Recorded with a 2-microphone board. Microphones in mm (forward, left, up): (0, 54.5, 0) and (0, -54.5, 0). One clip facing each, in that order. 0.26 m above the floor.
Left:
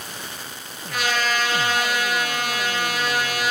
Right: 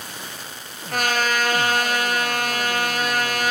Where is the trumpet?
45° right (ahead or behind), 4.5 m.